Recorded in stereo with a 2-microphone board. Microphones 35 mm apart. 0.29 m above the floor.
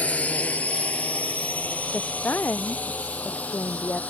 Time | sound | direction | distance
0.0 | a drone | 45° left (ahead or behind) | ?
1.9 | a woman speaking | 65° left (ahead or behind) | ?